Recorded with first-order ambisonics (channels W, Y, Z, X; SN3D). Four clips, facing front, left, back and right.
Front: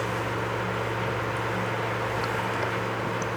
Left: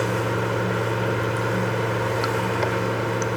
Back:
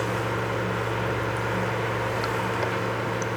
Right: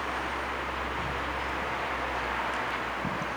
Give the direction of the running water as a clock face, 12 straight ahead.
9 o'clock.